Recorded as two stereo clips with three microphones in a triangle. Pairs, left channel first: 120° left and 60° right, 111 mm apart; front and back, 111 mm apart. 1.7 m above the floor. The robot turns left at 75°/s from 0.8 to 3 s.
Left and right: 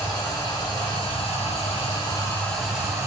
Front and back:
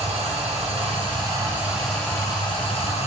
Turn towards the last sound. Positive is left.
turn(degrees=5)